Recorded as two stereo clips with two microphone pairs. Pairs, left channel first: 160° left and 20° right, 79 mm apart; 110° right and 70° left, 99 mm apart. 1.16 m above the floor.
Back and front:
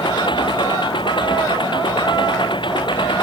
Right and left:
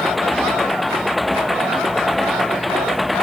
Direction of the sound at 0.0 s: 160° left.